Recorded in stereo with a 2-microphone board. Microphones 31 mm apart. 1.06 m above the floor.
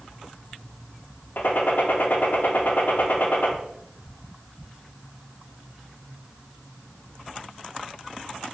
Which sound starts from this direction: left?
A gunshot, at 1.4 s.